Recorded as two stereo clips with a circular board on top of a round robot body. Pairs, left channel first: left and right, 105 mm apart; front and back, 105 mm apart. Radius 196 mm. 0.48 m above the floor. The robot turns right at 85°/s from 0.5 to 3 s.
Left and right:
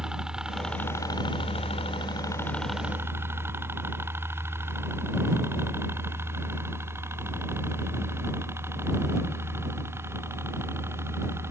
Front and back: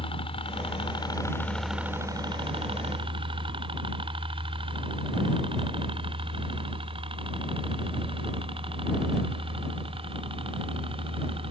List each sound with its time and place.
0.0 s a helicopter: 10° right; by 11.5 s 155° right